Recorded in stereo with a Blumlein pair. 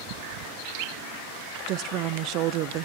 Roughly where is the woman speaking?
Ahead right.